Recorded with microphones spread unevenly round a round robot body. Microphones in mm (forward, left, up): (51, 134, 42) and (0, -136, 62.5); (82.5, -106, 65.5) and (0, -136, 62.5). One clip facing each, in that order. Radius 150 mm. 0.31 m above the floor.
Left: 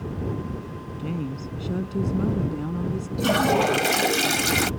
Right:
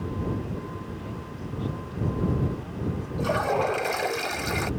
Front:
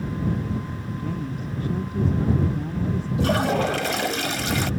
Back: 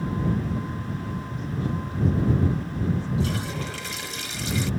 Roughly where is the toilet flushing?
Ahead left.